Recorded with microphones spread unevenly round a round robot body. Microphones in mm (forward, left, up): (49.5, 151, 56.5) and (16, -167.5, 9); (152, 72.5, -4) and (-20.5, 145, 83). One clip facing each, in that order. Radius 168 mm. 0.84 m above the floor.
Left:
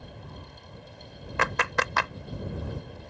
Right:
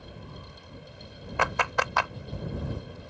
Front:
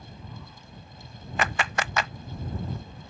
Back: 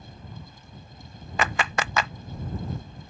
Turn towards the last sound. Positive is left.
turn(degrees=155)